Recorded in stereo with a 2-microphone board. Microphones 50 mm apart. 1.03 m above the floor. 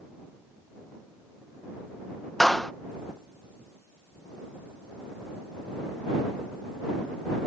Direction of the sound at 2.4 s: 5° left (ahead or behind).